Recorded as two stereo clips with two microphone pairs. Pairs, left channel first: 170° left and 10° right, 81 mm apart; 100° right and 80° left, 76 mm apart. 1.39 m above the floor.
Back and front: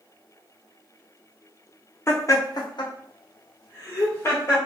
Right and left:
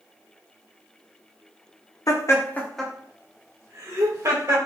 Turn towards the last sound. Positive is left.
turn(degrees=120)